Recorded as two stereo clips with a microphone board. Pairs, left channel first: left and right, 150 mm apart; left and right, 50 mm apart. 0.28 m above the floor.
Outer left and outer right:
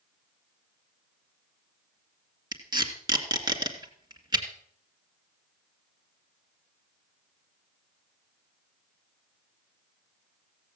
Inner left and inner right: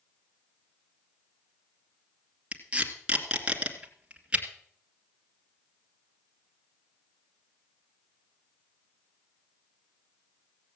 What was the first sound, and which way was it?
Tape being pulled, 25° right (ahead or behind).